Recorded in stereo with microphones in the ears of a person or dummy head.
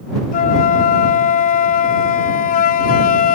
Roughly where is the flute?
Left.